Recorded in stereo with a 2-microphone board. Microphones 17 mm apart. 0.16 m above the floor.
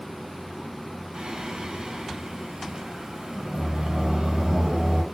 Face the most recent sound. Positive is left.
turn(degrees=-55)  # may be behind; listen again after turning